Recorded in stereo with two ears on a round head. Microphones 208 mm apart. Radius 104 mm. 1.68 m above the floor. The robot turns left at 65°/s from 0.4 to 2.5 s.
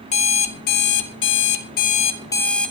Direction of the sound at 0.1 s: 145° left.